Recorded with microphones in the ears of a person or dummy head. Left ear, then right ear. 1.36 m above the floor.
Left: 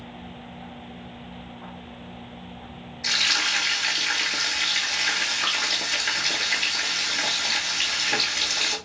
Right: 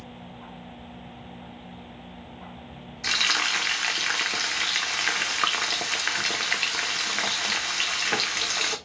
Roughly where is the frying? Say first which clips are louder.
Left 1 dB; right.